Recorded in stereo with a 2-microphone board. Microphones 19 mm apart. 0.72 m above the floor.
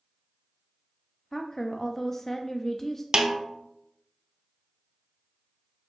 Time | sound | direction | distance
1.3 | a woman speaking | 25° left (ahead or behind) | 0.5 m
3.1 | a snare drum | 55° right (ahead or behind) | 0.9 m